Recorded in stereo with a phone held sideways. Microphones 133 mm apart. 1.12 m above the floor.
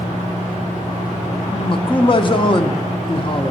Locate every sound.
0.0 s a fan: 70° left (ahead or behind), 3 m
1.5 s a man speaking: 40° left (ahead or behind), 0.6 m